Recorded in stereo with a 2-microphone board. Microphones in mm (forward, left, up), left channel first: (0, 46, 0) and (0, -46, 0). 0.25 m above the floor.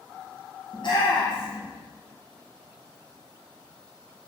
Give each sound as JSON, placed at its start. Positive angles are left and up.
{"t": 0.7, "sound": "a shout", "side_deg": 60, "distance_m": 4.5}